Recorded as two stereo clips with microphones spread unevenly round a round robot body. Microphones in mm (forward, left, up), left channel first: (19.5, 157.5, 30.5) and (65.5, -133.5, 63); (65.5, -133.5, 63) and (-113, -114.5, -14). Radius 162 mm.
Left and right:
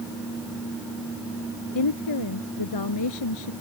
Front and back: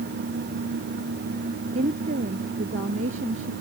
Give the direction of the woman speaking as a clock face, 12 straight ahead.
8 o'clock.